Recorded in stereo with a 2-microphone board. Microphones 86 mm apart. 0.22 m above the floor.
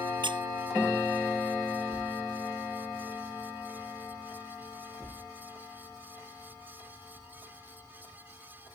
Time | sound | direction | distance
0.2 | a squeak | 70° right (ahead or behind) | ?